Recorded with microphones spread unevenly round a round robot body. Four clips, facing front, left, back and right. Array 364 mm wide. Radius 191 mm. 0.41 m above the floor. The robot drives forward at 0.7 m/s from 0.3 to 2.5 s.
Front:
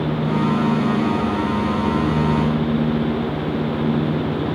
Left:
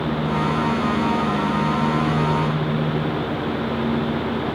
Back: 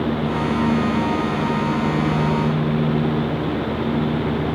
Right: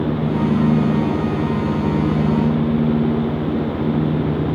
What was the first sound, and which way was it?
Only background noise.